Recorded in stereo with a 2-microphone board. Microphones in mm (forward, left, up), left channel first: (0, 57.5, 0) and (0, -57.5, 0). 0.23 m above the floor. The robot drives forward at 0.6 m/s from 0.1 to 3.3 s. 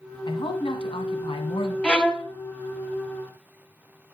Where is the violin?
10° left (ahead or behind), 1.0 m.